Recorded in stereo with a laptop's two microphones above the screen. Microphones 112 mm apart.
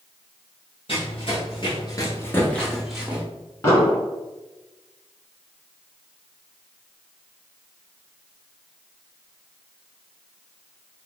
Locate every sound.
0.9 s running footsteps: 60° left (ahead or behind), 1.6 m; by 3.2 s 15° right (ahead or behind), 1.1 m
3.6 s an explosion: 25° left (ahead or behind), 1.6 m